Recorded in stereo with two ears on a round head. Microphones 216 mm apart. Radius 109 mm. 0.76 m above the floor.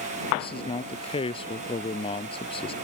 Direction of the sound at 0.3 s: 25° left (ahead or behind).